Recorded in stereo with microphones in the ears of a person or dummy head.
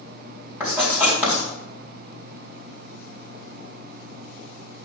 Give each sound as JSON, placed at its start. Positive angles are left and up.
{"t": 0.6, "sound": "writing", "side_deg": -10, "distance_m": 4.5}